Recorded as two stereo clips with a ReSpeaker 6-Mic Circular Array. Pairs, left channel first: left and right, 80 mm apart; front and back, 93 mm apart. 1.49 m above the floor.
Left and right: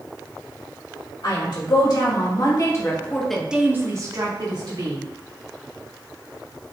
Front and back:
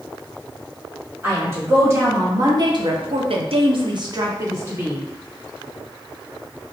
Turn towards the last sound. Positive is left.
turn(degrees=-115)